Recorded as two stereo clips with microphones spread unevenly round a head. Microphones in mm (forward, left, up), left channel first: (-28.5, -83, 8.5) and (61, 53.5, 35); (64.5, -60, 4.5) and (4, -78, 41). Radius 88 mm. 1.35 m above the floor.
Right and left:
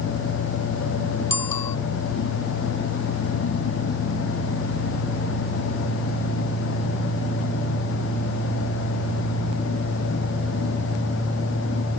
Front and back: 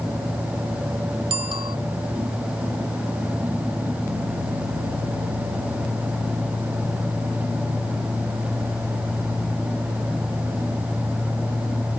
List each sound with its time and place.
1.3 s a bicycle bell: 160° left